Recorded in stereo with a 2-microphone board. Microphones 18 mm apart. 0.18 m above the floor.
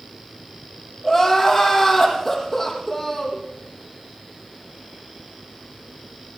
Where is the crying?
15° left (ahead or behind), 7 m.